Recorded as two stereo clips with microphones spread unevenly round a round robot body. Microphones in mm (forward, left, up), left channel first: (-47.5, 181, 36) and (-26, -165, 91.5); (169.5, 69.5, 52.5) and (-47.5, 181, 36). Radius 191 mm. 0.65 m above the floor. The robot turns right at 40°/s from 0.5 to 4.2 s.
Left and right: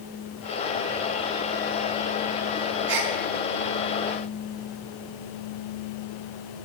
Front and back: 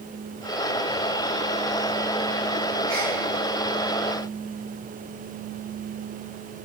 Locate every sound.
2.9 s a gasp: 110° right, 1.2 m; by 3.1 s 100° right, 1.2 m